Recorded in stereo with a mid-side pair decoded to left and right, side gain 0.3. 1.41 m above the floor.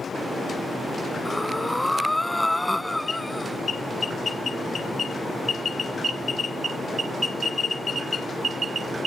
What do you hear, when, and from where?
1.2 s breathing: 10° left